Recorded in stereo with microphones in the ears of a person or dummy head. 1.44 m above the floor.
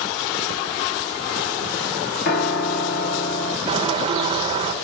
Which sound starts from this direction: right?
A bird, at 3.7 s.